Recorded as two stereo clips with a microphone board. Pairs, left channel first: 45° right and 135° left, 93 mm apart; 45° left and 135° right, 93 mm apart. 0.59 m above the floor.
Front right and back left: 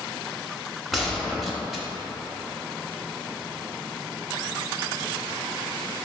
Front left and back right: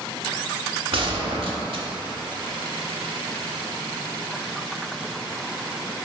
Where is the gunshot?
135° right, 0.6 m.